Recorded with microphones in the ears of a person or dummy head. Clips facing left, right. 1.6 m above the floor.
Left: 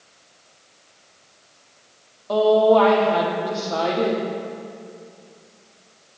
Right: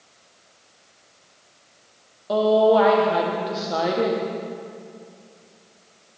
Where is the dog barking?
I don't hear a dog barking.